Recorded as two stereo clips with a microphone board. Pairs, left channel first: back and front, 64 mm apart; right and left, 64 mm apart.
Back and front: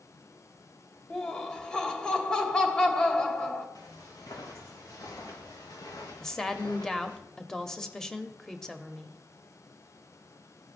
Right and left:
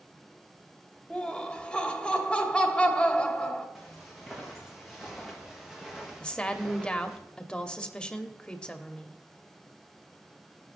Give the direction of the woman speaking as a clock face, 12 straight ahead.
4 o'clock.